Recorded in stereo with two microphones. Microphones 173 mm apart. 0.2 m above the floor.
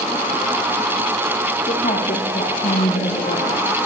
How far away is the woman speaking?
About 6 m.